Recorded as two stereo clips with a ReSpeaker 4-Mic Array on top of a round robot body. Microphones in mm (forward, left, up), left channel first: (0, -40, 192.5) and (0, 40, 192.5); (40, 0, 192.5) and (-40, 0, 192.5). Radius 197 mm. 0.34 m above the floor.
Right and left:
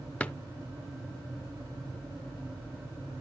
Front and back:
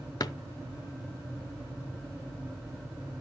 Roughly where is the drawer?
Ahead.